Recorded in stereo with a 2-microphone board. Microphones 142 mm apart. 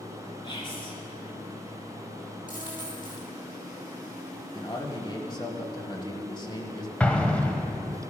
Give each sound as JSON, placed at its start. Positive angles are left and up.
{"t": 0.4, "sound": "whispering", "side_deg": 35, "distance_m": 3.5}
{"t": 2.5, "sound": "a dropped coin", "side_deg": 60, "distance_m": 5.0}
{"t": 4.5, "sound": "a man speaking", "side_deg": 30, "distance_m": 1.5}
{"t": 7.0, "sound": "an explosion", "side_deg": 10, "distance_m": 1.1}